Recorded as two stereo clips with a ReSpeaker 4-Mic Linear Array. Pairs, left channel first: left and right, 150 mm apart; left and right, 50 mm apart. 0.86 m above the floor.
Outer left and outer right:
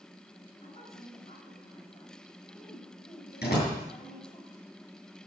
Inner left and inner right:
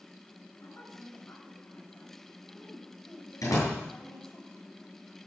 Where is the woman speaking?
40° left (ahead or behind), 5 m.